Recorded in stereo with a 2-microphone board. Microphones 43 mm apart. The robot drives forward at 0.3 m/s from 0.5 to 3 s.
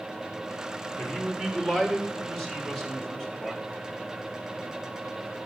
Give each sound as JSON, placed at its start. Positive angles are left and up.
{"t": 1.0, "sound": "a man speaking", "side_deg": 5, "distance_m": 3.0}